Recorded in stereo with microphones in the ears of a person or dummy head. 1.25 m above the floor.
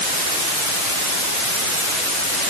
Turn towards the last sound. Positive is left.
No sound to turn to.